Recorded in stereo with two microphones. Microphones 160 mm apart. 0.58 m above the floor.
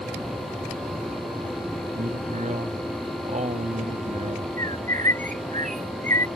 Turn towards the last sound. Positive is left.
turn(degrees=-55)  # may be behind; listen again after turning